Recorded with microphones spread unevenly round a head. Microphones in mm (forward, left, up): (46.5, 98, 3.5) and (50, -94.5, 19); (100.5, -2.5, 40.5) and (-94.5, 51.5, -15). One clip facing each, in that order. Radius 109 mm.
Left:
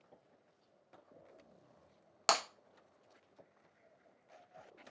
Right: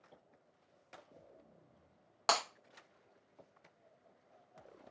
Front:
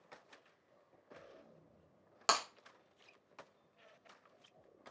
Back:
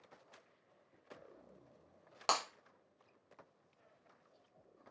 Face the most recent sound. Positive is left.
turn(degrees=40)